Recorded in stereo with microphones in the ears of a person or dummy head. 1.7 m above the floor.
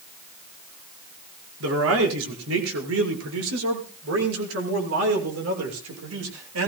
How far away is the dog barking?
I don't hear a dog barking.